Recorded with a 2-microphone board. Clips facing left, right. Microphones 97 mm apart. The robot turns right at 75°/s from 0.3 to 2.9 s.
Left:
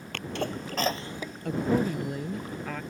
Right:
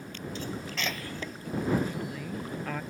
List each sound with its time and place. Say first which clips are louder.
0.1 s a sneeze: left 5 dB; 70° left (ahead or behind); by 1.4 s centre (ahead or behind)
1.4 s a woman speaking: left 3 dB; 85° left; by 2.8 s 170° right